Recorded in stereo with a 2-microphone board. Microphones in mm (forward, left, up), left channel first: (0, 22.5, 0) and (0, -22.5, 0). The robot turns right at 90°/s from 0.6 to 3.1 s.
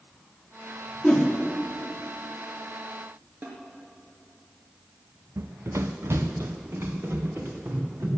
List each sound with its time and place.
1.0 s a whoosh: 35° left (ahead or behind), 3.5 m; by 1.3 s 15° left (ahead or behind), 3.5 m
3.4 s a snare drum: 45° right (ahead or behind), 3 m
5.4 s running footsteps: 80° right, 0.7 m; by 8.1 s 65° right (ahead or behind), 3.5 m